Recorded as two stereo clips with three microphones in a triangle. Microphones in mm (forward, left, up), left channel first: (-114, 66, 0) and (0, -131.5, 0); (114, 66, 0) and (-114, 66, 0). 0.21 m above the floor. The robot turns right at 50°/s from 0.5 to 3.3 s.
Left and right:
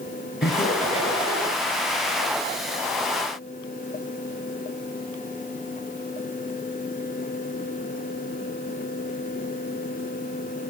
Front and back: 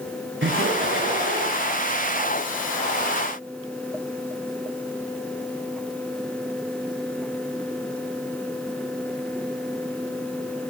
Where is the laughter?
155° left, 3 m; by 1.6 s 150° right, 3 m.